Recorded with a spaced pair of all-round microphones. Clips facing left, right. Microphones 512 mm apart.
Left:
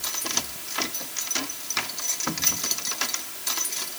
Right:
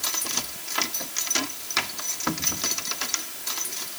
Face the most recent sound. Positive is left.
No sound to turn to.